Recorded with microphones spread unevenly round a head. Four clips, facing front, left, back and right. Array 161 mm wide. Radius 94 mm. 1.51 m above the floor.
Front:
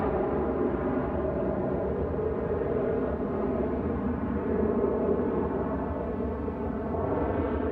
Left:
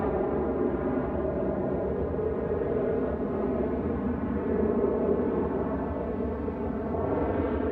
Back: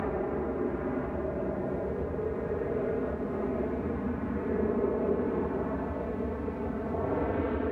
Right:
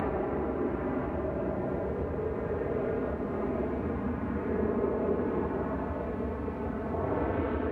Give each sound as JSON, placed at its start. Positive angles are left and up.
{"t": 0.0, "sound": "an aircraft", "azimuth_deg": 90}